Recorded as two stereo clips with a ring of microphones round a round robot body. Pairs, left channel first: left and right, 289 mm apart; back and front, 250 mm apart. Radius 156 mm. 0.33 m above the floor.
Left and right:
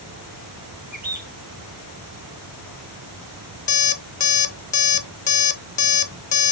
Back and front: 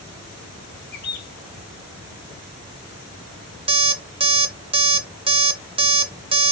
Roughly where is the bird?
Behind right.